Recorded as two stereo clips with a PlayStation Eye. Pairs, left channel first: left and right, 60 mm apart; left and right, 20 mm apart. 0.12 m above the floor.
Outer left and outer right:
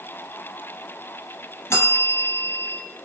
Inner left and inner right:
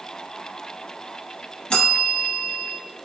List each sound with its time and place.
1.7 s a bell: 50° left (ahead or behind), 0.7 m